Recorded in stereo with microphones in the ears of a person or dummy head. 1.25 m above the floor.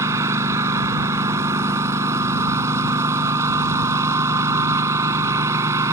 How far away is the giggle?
I don't hear a giggle.